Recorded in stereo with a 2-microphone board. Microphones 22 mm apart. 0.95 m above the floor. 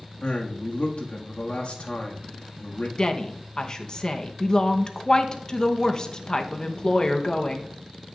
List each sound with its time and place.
0.2 s a man speaking: 65° left (ahead or behind), 1.8 m
3.0 s a woman speaking: 35° left (ahead or behind), 0.9 m